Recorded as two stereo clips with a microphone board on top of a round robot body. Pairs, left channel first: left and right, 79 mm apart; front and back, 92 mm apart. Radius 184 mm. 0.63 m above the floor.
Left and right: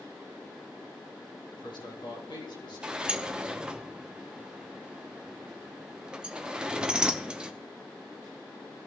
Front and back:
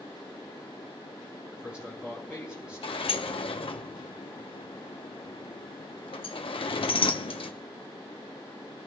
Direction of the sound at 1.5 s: 100° left.